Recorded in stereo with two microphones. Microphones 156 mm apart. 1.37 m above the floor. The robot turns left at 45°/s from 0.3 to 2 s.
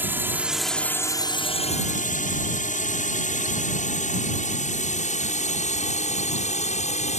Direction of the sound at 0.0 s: 10° right (ahead or behind).